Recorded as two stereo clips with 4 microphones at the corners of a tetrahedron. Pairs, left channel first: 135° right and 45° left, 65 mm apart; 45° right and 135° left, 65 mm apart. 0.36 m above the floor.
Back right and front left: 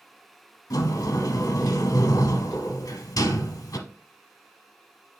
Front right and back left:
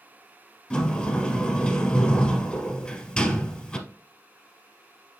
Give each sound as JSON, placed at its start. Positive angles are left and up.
{"t": 0.7, "sound": "a sliding door", "azimuth_deg": -120, "distance_m": 0.9}